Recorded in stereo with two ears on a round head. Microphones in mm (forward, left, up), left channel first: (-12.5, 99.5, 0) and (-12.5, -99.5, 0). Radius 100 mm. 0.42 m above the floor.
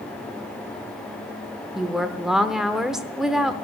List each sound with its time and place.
1.8 s a woman speaking: 5° right (ahead or behind), 0.7 m